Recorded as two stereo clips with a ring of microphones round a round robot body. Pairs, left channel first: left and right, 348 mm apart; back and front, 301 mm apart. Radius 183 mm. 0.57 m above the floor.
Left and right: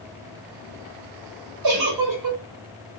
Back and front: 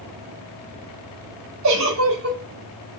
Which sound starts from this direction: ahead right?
A giggle, at 1.6 s.